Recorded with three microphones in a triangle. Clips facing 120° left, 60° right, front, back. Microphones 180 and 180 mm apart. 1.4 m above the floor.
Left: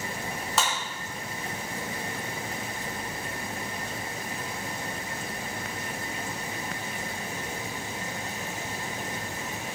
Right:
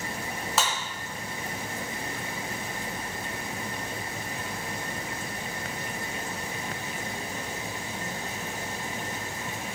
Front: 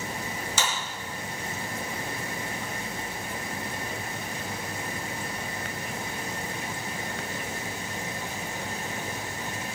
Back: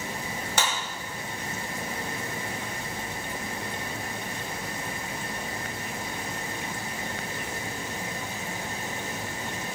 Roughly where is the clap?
Behind right.